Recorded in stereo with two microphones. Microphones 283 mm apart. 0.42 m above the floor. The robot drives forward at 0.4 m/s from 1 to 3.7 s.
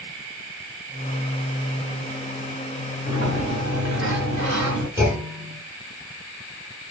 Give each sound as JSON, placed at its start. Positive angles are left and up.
{"t": 3.1, "sound": "a sliding door", "side_deg": -75, "distance_m": 1.3}
{"t": 5.0, "sound": "a clunk", "side_deg": -10, "distance_m": 2.0}